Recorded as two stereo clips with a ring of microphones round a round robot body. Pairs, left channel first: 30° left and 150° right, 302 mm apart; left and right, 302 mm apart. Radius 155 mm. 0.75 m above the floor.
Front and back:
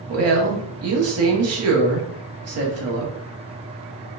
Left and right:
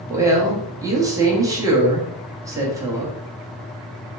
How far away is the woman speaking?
About 1.2 m.